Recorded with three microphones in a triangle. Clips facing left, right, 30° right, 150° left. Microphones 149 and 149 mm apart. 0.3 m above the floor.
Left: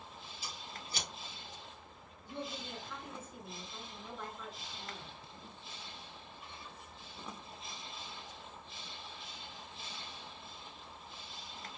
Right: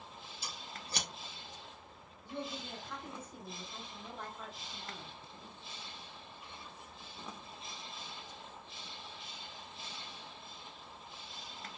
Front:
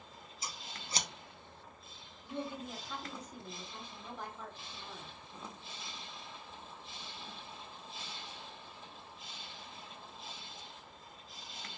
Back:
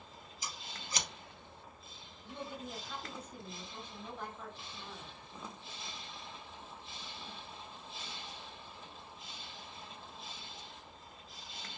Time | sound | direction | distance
0.4 | scissors | 90° right | 0.6 m
2.2 | a woman speaking | 100° right | 1.7 m